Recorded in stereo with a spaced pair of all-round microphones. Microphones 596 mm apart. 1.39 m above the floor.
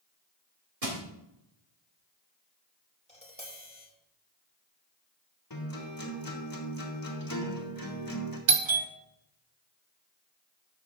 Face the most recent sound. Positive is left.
turn(degrees=-50)  # may be behind; listen again after turning